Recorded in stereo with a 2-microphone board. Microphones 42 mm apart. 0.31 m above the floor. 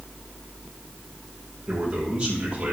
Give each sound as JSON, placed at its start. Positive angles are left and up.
{"t": 1.7, "sound": "a man speaking", "side_deg": -20, "distance_m": 7.5}